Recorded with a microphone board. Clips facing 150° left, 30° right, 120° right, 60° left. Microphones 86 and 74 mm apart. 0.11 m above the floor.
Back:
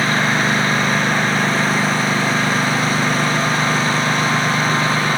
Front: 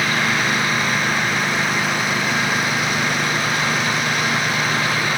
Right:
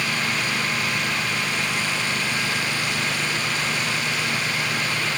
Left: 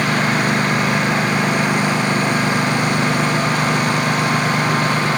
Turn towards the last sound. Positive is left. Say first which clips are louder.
# back 3 dB, left 8 dB
turn(degrees=90)